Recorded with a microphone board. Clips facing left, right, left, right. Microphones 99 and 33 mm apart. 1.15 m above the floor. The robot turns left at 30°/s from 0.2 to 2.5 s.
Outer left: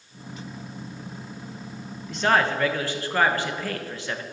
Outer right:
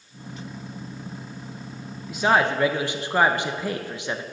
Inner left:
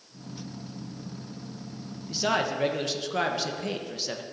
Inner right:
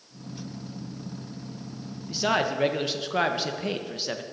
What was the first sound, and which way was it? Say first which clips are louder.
A man speaking: outer right 1 dB, inner right 2 dB; 5° right (ahead or behind).